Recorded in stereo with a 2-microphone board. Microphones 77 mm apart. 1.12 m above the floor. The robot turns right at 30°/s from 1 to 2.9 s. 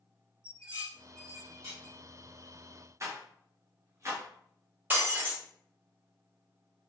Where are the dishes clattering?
65° right (ahead or behind), 1.7 m; by 1.9 s 80° right, 1.7 m.